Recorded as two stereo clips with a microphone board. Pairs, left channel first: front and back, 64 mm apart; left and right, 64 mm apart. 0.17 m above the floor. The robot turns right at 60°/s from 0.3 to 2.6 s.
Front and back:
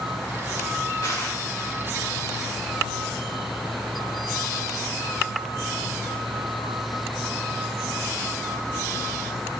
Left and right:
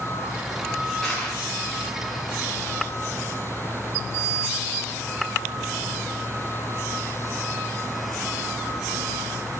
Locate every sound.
1.0 s crushing: 5° left, 4 m; by 1.4 s 30° left, 4 m